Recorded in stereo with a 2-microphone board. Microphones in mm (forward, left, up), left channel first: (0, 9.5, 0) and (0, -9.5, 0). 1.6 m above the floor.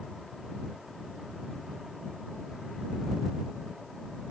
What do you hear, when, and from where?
Only background noise.